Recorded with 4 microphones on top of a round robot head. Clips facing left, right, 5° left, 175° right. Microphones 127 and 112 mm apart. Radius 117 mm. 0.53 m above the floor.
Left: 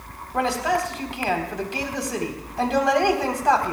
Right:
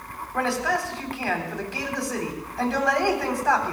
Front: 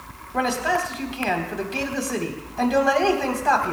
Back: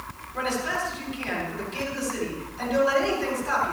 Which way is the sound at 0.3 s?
20° left.